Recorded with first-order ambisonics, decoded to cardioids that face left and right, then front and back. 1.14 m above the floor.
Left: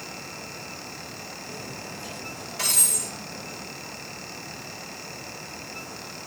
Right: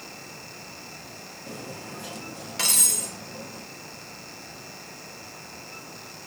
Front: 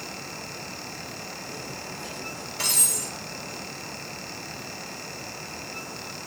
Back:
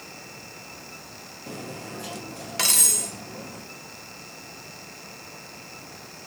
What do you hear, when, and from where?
1.5 s cutlery clinking: 155° right, 0.9 m